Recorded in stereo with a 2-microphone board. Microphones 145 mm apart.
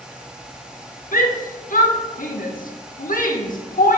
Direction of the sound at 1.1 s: 70° left (ahead or behind).